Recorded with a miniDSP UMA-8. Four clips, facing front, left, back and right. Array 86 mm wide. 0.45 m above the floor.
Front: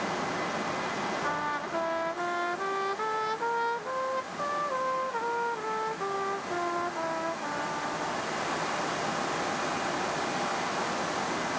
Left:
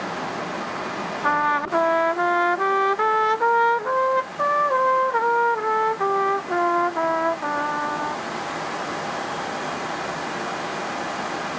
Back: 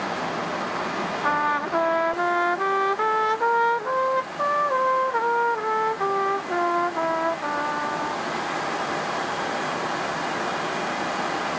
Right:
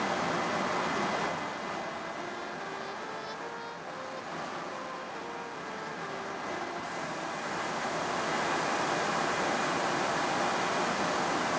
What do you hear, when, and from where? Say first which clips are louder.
1.2 s a trumpet: left 14 dB, back 8 dB; 115° left